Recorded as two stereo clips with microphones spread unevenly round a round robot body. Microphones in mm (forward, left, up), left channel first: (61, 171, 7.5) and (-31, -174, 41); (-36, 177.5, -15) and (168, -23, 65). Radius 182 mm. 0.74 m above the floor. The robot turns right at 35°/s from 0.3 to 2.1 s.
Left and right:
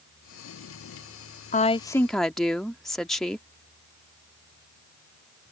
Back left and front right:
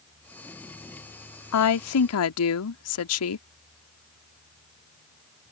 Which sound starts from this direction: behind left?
A woman speaking, at 1.5 s.